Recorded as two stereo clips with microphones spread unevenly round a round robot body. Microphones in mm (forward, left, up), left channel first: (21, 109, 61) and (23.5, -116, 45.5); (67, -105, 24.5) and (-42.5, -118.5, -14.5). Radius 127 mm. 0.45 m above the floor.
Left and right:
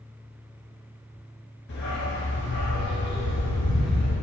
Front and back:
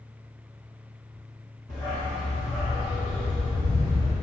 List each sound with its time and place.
1.7 s a dog barking: 135° left, 2 m